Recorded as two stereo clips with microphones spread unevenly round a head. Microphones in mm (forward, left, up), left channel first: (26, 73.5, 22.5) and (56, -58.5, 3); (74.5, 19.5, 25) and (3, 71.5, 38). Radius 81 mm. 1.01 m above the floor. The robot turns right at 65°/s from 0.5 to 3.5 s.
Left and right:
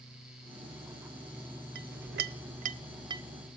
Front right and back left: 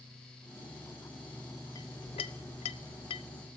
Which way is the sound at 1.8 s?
105° right.